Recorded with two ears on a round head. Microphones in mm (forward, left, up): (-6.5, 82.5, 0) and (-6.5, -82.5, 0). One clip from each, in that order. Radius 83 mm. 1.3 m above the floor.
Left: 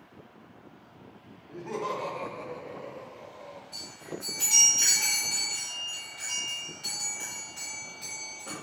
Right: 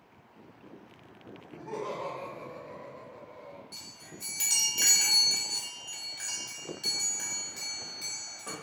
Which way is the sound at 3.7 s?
30° right (ahead or behind).